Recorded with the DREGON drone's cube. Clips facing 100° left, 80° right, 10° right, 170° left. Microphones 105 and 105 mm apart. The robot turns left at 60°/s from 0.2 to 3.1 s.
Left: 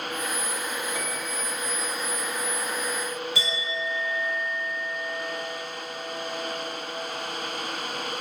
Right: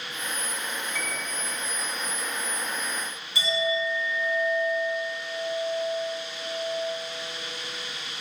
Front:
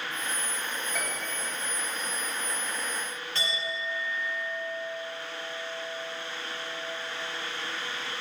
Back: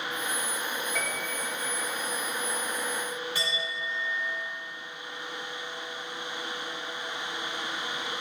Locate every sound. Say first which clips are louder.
0.9 s a piano: left 2 dB, back 1 dB; 65° left, 1.2 m; by 1.4 s 40° left, 1.2 m
3.4 s a clink: right 5 dB, even; 90° left, 2.0 m